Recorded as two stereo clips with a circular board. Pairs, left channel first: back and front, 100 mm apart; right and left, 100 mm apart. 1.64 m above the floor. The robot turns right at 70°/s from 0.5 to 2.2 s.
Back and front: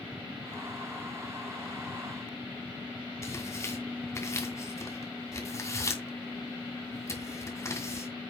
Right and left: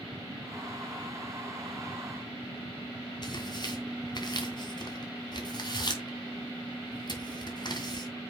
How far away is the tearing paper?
About 2.5 m.